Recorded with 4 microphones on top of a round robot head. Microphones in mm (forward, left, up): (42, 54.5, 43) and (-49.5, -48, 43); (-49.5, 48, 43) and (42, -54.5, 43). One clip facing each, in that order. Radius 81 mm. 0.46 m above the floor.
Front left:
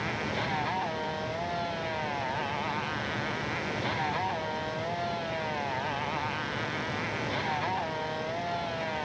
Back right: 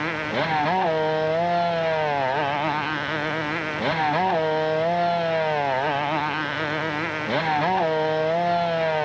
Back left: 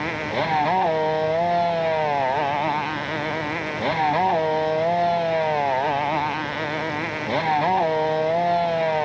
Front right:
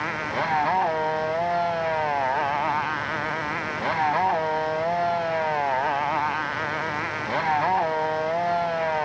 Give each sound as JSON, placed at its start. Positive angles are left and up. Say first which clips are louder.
{"t": 0.0, "sound": "a motorcycle", "louder": "back right 7 dB, back left 3 dB", "azimuth_deg": -165}